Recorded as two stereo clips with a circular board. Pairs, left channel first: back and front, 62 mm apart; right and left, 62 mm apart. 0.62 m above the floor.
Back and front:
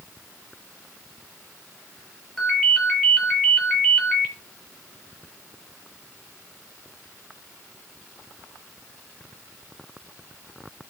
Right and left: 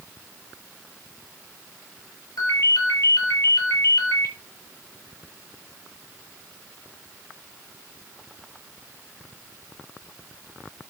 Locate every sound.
2.4 s a ringtone: 95° right, 7.5 m